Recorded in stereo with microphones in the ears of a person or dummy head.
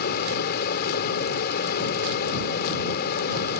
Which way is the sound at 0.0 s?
60° left (ahead or behind).